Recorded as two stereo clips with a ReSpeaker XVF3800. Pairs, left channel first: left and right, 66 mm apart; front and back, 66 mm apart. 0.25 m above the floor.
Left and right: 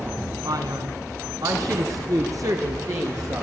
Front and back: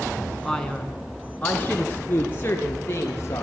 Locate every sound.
0.5 s a man speaking: 85° right, 2.5 m; by 3.4 s 50° right, 5 m